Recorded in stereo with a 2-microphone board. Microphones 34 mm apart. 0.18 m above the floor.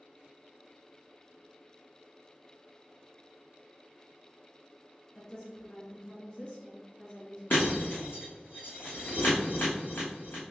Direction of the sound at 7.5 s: 75° left (ahead or behind).